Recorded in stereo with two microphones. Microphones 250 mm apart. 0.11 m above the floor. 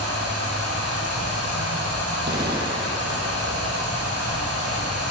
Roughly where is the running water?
Right.